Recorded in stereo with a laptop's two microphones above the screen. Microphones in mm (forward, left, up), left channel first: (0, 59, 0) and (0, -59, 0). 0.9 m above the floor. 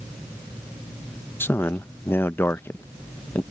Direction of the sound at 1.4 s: 20° left (ahead or behind).